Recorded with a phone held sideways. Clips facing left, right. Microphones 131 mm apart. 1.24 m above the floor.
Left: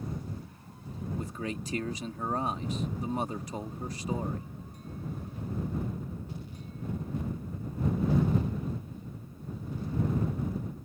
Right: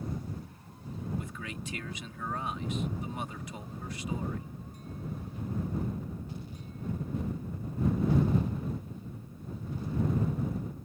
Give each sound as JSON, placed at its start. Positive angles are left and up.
{"t": 1.2, "sound": "a man speaking", "side_deg": 40}